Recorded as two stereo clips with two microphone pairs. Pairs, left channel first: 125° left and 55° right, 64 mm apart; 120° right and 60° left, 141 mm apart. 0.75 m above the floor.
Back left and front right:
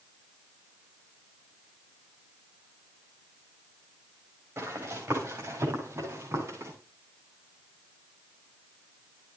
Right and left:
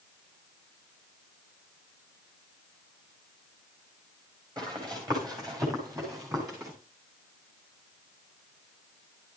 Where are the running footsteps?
Straight ahead, 8 m; by 6.7 s 5° right, 9 m.